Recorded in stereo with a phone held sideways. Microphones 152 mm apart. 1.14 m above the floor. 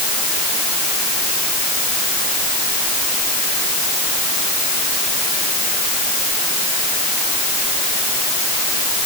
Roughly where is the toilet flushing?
I don't hear a toilet flushing.